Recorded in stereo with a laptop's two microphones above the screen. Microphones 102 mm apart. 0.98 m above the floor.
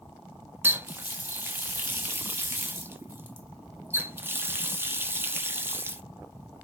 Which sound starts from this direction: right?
A running tap, at 0.6 s.